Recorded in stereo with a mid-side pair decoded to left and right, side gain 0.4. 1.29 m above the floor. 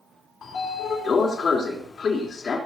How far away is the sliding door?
About 3.5 m.